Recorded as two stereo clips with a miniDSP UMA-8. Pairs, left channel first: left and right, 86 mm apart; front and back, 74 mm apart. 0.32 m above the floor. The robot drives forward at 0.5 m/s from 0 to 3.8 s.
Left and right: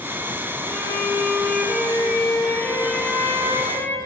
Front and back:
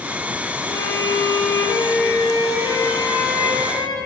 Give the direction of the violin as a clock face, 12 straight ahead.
12 o'clock.